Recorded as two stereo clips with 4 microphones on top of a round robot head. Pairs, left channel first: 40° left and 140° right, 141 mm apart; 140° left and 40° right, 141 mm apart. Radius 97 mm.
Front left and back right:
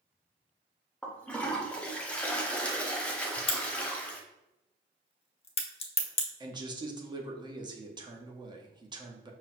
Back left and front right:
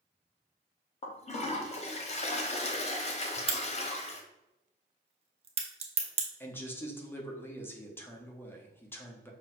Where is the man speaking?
160° right, 0.8 m.